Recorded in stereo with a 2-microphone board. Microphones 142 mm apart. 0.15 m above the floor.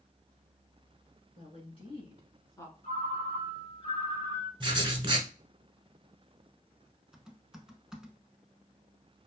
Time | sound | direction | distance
1.4 | a woman speaking | 50° left (ahead or behind) | 1.9 m
2.8 | a ringtone | 45° left (ahead or behind) | 1.3 m
4.6 | writing | 35° right (ahead or behind) | 0.7 m
7.1 | typing on a keyboard | 5° right (ahead or behind) | 0.6 m